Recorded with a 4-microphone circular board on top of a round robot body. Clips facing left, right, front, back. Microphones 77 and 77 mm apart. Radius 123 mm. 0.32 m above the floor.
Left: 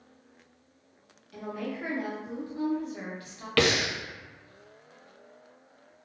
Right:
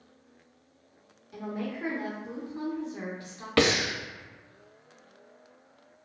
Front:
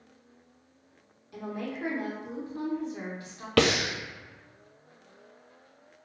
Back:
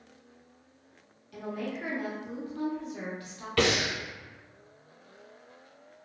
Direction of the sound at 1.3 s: 45° right.